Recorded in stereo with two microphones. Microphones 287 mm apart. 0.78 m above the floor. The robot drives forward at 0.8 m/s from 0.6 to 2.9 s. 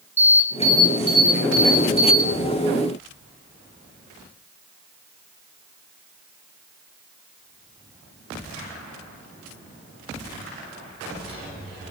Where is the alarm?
40° left (ahead or behind), 3.5 m; by 2.3 s 30° left (ahead or behind), 4.5 m.